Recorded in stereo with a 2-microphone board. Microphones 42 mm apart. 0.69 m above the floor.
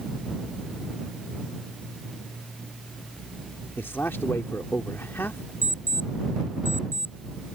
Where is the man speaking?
65° left (ahead or behind).